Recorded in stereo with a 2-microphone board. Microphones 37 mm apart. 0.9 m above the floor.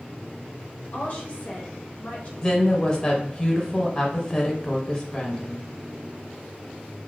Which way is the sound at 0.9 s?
40° left (ahead or behind).